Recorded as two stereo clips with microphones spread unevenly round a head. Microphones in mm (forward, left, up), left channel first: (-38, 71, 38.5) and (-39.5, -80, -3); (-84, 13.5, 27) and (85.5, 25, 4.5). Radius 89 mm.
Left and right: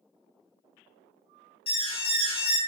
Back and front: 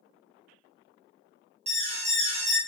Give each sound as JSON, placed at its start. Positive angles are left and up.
{"t": 1.7, "sound": "an alarm", "azimuth_deg": 25, "distance_m": 0.6}